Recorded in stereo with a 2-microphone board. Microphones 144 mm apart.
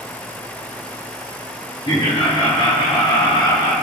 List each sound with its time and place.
1.9 s laughter: 30° left (ahead or behind), 1.3 m; by 3.7 s 25° left (ahead or behind), 2.5 m